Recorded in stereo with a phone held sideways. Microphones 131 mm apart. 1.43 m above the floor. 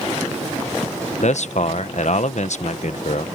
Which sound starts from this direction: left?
A man speaking, at 1.2 s.